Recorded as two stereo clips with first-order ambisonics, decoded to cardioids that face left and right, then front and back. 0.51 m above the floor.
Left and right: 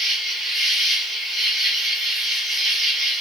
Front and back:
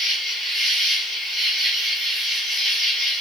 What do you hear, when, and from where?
0.0 s an insect: 140° right, 2.5 m